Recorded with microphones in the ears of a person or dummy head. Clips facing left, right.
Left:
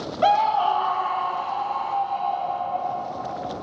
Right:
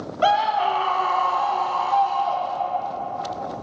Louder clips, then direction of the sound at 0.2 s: Even; 5° right (ahead or behind).